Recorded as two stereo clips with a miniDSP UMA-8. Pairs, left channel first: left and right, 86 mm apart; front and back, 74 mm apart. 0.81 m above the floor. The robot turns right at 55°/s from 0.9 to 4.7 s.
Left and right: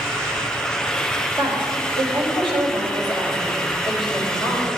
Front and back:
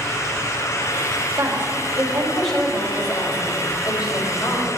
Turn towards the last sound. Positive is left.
turn(degrees=35)